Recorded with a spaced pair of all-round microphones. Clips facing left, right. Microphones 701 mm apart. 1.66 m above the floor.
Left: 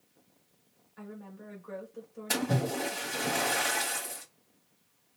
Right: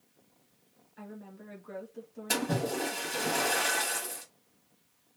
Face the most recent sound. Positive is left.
turn(degrees=0)  # may be behind; listen again after turning